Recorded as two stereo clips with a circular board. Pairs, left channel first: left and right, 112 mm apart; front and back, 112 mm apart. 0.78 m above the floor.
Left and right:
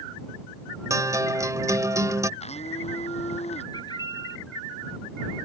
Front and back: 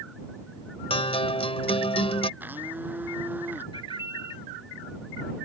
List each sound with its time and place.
0.9 s a guitar: 30° right
2.4 s a blender: 105° left
3.7 s a bird: 40° left